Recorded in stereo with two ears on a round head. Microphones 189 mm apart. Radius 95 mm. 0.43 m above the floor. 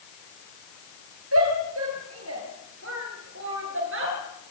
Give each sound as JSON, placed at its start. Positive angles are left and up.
{"t": 1.3, "sound": "a shout", "side_deg": -75, "distance_m": 10.0}